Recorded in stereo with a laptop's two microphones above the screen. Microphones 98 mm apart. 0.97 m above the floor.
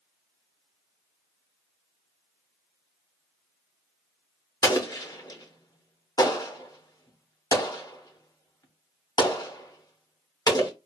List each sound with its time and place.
4.6 s an explosion: 40° left (ahead or behind), 0.8 m